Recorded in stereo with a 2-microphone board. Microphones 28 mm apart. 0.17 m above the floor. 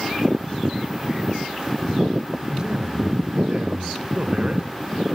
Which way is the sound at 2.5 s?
25° right (ahead or behind).